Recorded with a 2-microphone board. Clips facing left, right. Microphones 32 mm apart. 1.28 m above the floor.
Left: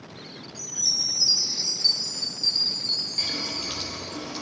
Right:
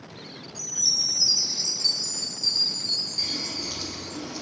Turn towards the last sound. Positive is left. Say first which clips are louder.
# left 1 dB
turn(degrees=55)  # may be behind; listen again after turning